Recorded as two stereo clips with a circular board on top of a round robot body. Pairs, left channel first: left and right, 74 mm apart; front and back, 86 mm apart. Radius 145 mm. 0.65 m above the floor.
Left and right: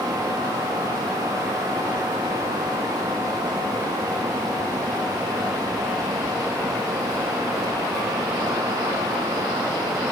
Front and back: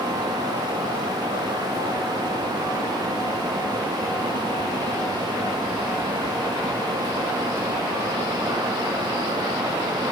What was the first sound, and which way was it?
Only background noise.